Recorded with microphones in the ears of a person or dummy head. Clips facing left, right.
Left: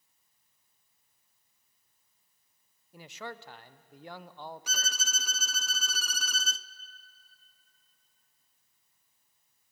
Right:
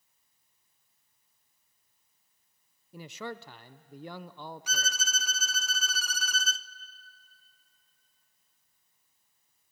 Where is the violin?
85° left, 0.6 m.